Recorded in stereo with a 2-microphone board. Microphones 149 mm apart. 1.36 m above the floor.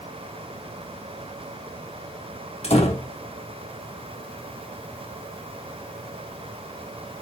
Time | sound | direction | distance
2.6 | a door slam | 45° left (ahead or behind) | 1.8 m